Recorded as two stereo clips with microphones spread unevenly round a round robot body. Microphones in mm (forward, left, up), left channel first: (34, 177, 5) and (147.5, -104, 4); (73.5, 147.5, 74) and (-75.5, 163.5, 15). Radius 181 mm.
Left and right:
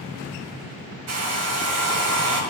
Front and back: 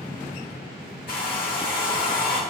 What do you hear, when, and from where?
1.1 s a hair dryer: 50° right, 2.5 m